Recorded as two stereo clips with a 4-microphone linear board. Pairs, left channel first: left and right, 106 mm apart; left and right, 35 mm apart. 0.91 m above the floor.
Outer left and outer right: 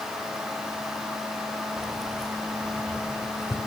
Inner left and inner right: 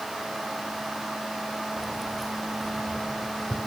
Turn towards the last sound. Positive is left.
turn(degrees=25)  # may be behind; listen again after turning